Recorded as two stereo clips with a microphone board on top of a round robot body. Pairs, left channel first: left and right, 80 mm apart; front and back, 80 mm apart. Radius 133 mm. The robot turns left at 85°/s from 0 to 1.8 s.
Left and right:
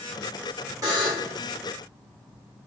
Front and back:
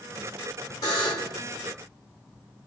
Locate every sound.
0.8 s a buzzer: 45° right, 0.7 m; by 1.4 s 90° right, 0.7 m